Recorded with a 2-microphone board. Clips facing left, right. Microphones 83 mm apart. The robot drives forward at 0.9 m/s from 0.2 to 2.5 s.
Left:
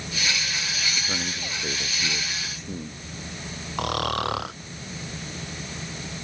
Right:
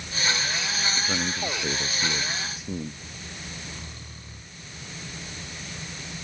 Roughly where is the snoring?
Left.